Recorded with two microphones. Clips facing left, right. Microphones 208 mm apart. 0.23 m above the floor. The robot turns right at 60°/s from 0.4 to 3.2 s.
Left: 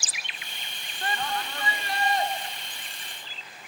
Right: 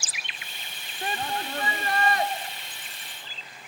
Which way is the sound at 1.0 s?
165° right.